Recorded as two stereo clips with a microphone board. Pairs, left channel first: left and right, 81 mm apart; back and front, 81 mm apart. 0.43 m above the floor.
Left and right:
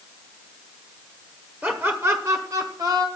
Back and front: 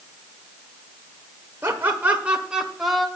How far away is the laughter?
About 1.3 m.